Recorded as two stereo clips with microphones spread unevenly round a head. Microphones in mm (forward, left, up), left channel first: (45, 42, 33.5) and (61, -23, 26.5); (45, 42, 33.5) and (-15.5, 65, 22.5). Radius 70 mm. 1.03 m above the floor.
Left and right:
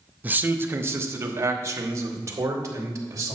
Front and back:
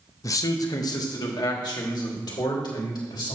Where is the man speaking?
30° right, 0.9 m; by 3.4 s 40° right, 2.5 m.